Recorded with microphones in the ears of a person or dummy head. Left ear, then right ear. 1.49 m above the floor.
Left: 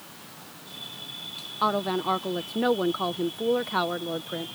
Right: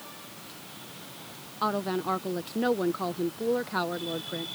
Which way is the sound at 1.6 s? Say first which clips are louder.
Left 3 dB; 20° left (ahead or behind).